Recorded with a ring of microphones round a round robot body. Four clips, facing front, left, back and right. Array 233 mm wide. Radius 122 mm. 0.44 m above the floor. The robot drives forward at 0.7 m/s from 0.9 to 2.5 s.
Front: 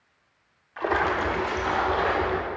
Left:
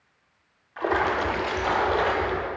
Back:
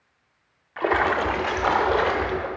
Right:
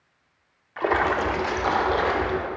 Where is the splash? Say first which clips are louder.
Right 2 dB, back 3 dB; 145° right, 0.7 m; by 2.5 s 170° right, 1.5 m.